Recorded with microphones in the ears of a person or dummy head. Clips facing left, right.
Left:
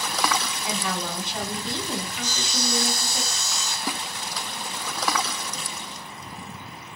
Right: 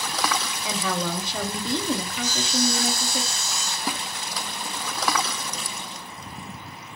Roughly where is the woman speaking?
Right.